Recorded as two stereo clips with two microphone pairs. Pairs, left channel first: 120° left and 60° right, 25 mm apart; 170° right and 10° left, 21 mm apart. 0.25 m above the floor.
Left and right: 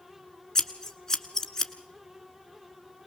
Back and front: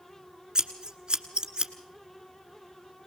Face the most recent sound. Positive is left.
turn(degrees=55)